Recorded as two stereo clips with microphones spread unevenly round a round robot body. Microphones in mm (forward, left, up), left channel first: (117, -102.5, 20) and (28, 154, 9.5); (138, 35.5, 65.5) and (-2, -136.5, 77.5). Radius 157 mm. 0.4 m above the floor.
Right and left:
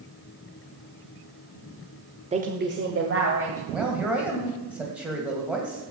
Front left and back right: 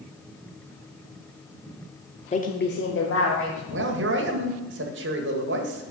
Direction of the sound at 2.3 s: 65° left.